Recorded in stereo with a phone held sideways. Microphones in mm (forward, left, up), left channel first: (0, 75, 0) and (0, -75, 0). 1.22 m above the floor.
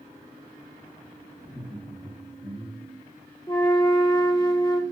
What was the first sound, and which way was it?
Laughter, 20° left (ahead or behind).